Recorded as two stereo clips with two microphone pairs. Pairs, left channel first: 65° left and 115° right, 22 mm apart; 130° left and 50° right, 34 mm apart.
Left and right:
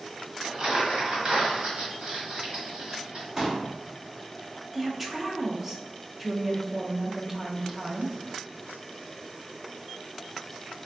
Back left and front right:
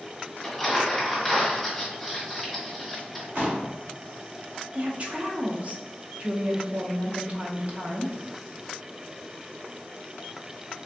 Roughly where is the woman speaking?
Ahead right.